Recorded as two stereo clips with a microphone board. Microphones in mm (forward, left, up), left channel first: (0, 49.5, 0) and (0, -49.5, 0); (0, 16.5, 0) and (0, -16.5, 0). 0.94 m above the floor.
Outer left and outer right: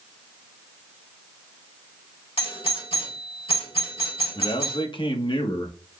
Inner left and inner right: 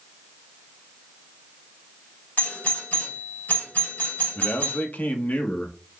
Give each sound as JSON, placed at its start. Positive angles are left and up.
{"t": 2.4, "sound": "a doorbell", "side_deg": 65, "distance_m": 2.5}
{"t": 4.3, "sound": "a man speaking", "side_deg": 55, "distance_m": 0.8}